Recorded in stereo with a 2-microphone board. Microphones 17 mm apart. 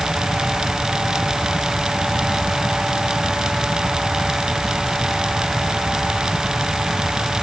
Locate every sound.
Only background noise.